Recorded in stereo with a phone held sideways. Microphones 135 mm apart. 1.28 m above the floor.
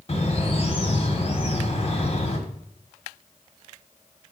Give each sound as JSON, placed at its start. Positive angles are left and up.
{"t": 0.1, "sound": "a bird", "side_deg": 45, "distance_m": 1.2}